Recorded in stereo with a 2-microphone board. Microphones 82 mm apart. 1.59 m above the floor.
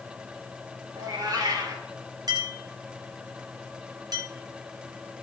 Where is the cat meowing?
50° right (ahead or behind), 3 m.